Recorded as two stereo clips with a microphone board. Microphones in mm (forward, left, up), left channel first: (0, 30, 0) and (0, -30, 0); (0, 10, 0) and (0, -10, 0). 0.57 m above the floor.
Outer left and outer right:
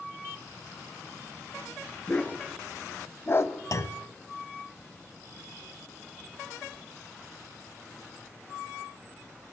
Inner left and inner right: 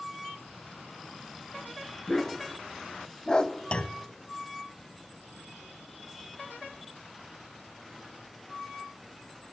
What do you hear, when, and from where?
2.1 s a dog barking: 25° left (ahead or behind), 2.5 m; by 3.5 s 55° left (ahead or behind), 0.8 m
3.7 s a clunk: 65° left (ahead or behind), 0.7 m